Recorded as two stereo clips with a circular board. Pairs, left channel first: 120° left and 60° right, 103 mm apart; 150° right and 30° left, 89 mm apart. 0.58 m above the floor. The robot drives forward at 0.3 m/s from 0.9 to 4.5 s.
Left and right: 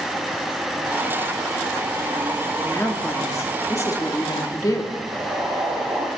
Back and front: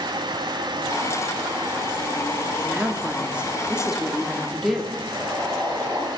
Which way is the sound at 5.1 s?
85° right.